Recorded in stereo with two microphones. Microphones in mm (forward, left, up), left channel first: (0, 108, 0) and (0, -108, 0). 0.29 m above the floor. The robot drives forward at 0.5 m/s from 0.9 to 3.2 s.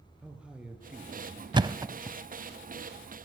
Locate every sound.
0.2 s a man speaking: 5° right (ahead or behind), 5 m
1.5 s a thud: 20° right (ahead or behind), 0.7 m; by 2.2 s 15° right (ahead or behind), 0.9 m